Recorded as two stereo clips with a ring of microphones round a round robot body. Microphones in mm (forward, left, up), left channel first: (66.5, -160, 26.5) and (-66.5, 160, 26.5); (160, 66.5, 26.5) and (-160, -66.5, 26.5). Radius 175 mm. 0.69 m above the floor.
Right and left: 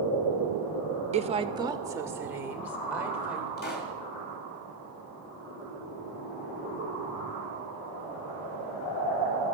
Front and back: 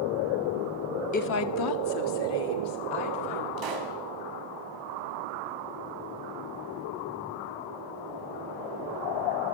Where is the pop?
130° right, 3 m.